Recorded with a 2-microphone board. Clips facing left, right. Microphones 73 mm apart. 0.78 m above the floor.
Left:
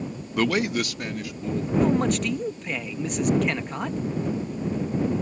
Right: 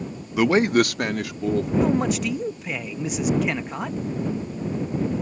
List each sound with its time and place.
0.4 s a man speaking: 5° right (ahead or behind); by 1.7 s 70° right (ahead or behind)
1.8 s a man speaking: 5° right (ahead or behind)